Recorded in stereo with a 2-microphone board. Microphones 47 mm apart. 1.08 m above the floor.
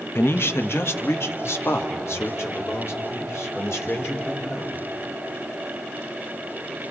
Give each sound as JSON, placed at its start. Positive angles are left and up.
{"t": 0.1, "sound": "a man speaking", "side_deg": 55, "distance_m": 0.9}